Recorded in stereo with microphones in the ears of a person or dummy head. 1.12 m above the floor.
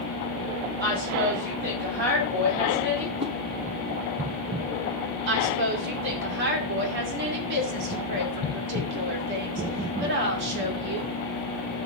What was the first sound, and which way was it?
A woman speaking, 55° right (ahead or behind).